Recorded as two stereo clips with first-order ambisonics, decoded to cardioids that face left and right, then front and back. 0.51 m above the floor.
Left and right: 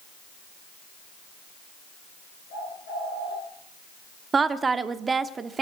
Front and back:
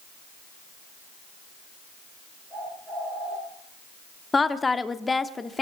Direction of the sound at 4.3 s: 55° right.